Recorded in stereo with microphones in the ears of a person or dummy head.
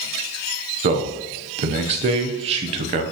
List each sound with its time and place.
0.8 s a man speaking: 40° right (ahead or behind), 0.7 m